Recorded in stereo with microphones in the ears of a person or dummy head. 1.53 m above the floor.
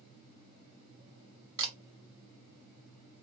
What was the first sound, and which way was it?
A camera shutter, 25° right (ahead or behind).